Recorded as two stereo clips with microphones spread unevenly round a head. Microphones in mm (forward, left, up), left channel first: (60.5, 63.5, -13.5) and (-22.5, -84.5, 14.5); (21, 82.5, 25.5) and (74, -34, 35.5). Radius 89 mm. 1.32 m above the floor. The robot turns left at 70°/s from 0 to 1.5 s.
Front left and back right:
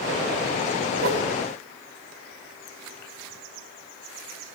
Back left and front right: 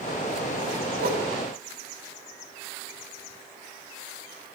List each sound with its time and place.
1.0 s a whoosh: 85° right, 3 m; by 1.3 s 105° right, 3 m